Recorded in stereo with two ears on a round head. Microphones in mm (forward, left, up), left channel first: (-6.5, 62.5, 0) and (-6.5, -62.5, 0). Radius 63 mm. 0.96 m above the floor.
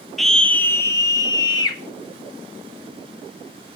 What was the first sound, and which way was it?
A scream, centre (ahead or behind).